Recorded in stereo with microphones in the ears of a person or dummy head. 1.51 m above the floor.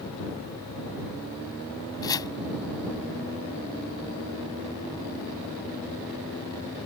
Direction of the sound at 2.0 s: 15° left (ahead or behind).